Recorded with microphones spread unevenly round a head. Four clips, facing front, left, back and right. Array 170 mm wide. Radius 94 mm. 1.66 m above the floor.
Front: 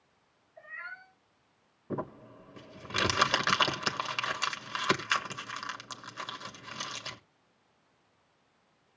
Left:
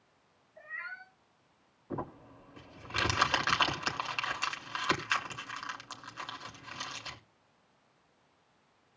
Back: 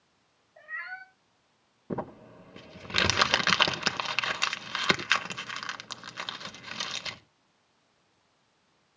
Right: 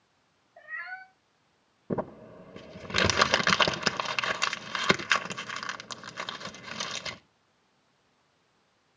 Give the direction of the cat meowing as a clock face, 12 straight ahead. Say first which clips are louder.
Right 3 dB, back 4 dB; 6 o'clock.